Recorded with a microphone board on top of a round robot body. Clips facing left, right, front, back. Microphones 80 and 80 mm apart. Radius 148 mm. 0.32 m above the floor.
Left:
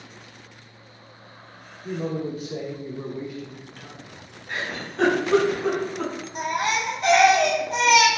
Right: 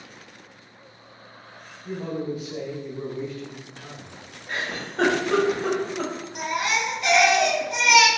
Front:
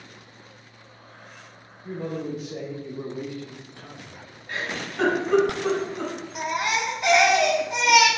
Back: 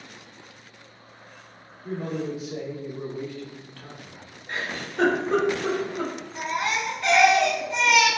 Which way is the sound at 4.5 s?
135° right.